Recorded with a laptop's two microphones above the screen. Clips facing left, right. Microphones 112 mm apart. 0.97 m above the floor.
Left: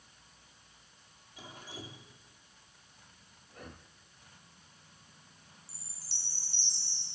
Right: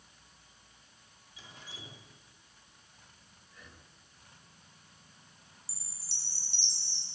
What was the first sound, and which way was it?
Dripping, 50° left (ahead or behind).